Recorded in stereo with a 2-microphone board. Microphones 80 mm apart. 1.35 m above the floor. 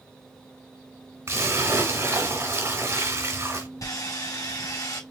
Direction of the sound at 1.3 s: 35° right (ahead or behind).